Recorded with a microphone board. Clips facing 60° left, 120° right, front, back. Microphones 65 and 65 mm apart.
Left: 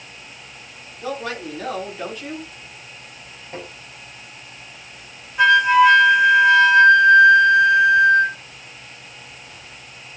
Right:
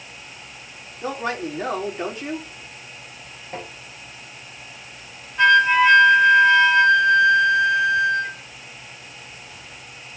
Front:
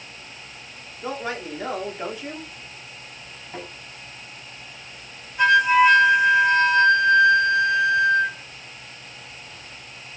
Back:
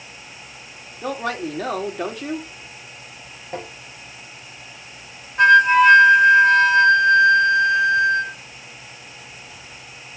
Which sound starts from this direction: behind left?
A flute, at 5.4 s.